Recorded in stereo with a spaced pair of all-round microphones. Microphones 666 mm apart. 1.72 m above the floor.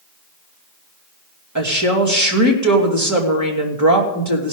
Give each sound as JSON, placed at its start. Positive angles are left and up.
{"t": 1.6, "sound": "a woman speaking", "side_deg": -25, "distance_m": 2.5}